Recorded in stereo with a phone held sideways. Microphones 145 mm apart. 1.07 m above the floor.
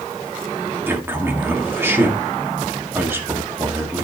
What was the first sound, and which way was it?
A man speaking, 15° right (ahead or behind).